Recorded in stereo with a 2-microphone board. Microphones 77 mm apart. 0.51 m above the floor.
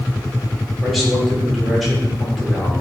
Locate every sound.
0.8 s a man speaking: centre (ahead or behind), 1.5 m